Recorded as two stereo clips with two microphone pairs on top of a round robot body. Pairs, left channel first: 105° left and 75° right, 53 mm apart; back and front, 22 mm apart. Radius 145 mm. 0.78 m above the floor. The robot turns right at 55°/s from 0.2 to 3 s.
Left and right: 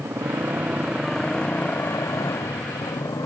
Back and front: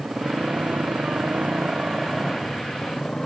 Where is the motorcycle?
40° right; by 3.3 s 115° left.